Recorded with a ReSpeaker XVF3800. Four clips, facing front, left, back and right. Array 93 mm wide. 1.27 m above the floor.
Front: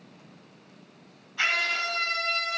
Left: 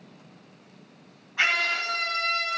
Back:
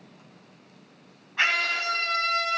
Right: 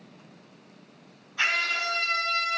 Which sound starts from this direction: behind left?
A scream, at 1.4 s.